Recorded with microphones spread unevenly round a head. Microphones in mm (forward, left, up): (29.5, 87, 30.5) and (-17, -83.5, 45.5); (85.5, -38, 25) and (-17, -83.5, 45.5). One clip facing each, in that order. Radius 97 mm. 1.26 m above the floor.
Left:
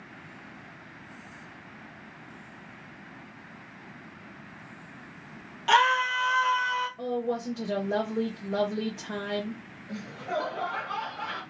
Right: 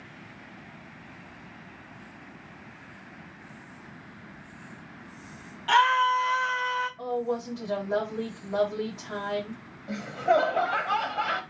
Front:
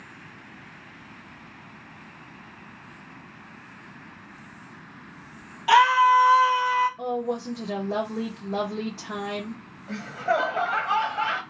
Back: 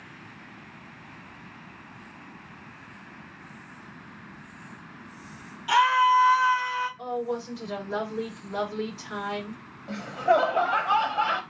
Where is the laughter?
90° right, 0.8 m.